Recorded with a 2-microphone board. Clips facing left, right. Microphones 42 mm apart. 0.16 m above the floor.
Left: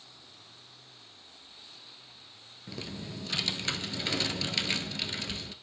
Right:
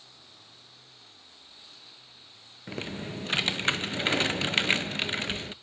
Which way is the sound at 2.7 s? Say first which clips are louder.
Right 5 dB; 45° right (ahead or behind).